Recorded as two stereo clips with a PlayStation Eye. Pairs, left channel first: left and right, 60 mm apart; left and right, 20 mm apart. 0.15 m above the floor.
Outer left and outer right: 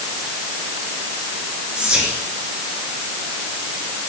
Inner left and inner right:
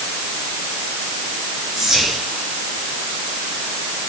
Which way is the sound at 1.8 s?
20° right (ahead or behind).